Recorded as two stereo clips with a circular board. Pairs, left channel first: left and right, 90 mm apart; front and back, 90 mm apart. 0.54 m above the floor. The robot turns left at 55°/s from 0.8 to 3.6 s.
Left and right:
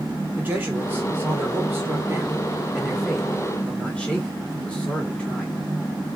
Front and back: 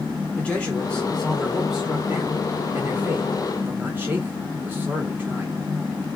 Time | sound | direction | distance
0.4 | a man speaking | 55° right | 0.9 m